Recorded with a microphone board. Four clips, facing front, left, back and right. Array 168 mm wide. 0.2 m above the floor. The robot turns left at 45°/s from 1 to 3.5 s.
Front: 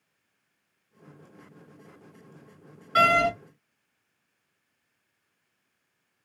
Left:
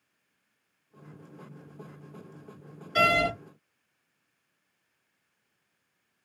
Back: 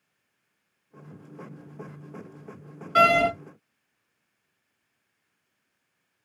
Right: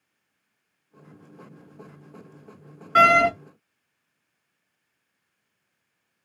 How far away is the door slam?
About 1.5 m.